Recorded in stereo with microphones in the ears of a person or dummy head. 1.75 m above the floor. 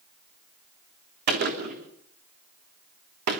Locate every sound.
1.3 s a gunshot: 50° right (ahead or behind), 3.5 m